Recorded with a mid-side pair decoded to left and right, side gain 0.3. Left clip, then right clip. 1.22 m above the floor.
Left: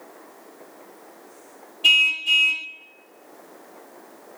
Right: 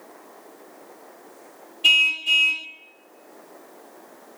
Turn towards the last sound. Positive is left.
turn(degrees=-10)